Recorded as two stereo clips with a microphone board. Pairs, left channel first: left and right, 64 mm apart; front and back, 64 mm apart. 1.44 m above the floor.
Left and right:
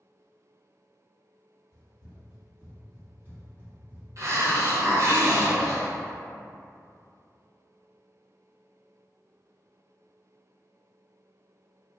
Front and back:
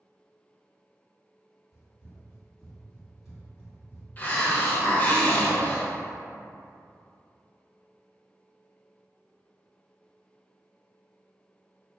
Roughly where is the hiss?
Ahead right.